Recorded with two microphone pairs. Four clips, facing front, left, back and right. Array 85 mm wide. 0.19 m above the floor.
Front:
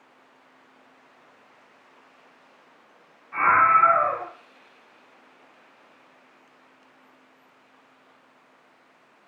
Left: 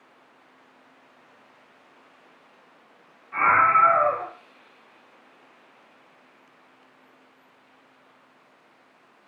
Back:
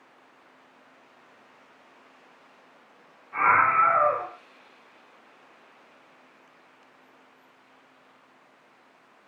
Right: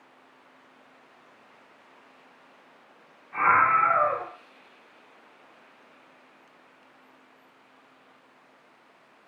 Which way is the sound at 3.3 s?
35° left.